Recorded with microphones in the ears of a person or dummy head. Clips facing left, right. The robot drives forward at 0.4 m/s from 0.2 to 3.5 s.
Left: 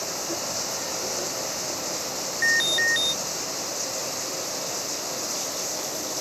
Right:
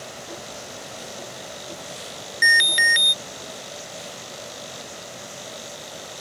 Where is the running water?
85° left.